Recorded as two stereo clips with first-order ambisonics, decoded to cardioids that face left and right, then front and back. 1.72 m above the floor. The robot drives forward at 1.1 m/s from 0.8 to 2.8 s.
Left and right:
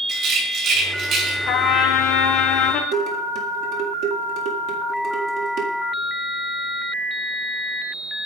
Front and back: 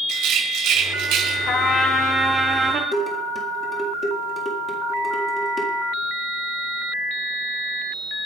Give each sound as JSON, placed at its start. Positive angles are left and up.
{"t": 0.1, "sound": "a rattle", "azimuth_deg": -140, "distance_m": 3.0}
{"t": 1.5, "sound": "a trumpet", "azimuth_deg": 50, "distance_m": 1.5}
{"t": 2.9, "sound": "dishes clattering", "azimuth_deg": -70, "distance_m": 1.8}